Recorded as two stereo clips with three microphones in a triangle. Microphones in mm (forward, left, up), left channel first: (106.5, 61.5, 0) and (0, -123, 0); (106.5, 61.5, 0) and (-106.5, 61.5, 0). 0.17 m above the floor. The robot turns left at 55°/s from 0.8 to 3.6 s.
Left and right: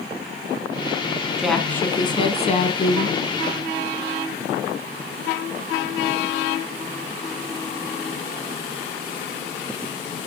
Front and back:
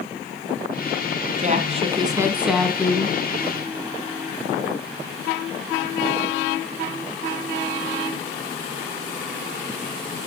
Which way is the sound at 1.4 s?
155° left.